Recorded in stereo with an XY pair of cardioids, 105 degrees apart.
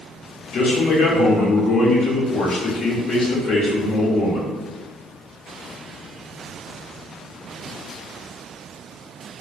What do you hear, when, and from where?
0.5 s a man speaking: 70° left, 0.9 m